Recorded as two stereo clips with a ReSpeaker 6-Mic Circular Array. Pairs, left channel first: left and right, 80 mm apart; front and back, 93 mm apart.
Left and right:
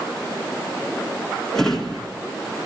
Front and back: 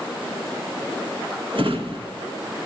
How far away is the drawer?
About 1.9 m.